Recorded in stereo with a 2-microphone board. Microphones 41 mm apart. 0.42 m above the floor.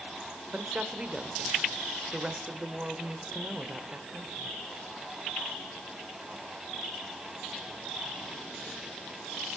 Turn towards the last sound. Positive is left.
turn(degrees=-25)  # may be behind; listen again after turning